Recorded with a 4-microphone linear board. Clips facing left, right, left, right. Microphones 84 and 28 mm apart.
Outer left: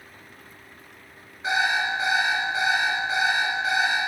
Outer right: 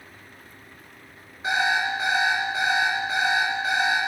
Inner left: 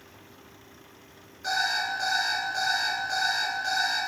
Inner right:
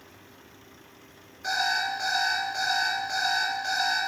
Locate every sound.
1.4 s an alarm clock: 5° right (ahead or behind), 3.5 m